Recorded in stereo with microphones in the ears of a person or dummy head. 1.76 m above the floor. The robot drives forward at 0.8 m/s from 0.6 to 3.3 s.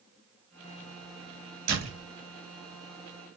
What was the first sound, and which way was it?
A door slam, 80° right.